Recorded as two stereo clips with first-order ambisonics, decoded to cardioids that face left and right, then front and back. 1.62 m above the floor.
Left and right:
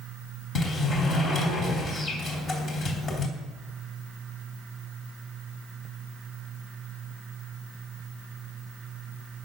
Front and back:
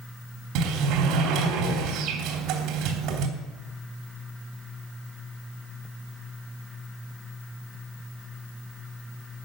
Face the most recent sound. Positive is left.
turn(degrees=145)